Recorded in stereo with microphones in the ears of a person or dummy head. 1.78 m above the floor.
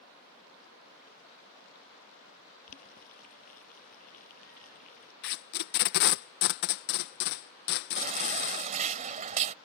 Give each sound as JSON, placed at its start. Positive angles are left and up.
{"t": 2.7, "sound": "boiling", "side_deg": 45}
{"t": 5.2, "sound": "tape being pulled", "side_deg": 60}
{"t": 8.0, "sound": "a baby crying", "side_deg": -40}